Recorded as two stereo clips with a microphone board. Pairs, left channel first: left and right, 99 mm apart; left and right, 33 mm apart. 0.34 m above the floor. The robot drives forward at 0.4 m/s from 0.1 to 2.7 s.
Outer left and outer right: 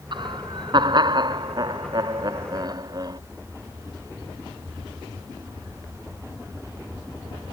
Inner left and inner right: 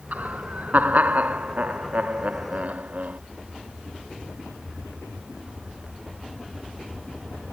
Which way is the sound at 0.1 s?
55° right (ahead or behind).